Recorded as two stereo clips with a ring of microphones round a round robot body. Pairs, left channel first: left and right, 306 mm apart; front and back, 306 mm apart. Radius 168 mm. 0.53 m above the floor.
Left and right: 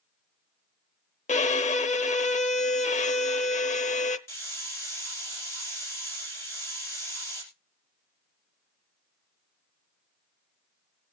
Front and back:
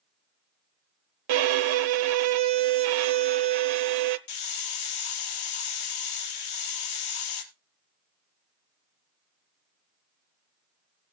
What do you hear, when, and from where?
1.3 s a violin: 160° left, 0.9 m
4.3 s a hiss: 5° left, 3 m